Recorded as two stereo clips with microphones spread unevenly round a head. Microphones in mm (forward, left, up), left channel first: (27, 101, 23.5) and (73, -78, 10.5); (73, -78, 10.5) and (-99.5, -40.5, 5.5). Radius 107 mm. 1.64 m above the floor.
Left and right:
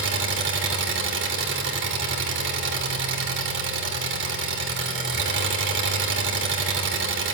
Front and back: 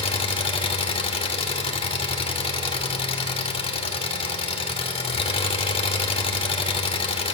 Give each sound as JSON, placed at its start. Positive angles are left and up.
{"t": 0.0, "sound": "an engine running", "azimuth_deg": -65, "distance_m": 2.0}